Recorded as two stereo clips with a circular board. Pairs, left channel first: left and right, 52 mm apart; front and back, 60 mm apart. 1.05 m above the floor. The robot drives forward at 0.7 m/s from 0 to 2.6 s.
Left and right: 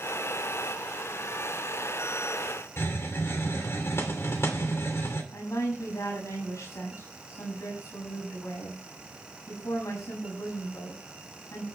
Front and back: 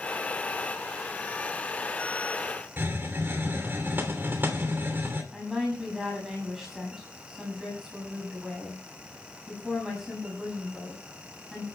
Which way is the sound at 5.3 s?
95° left.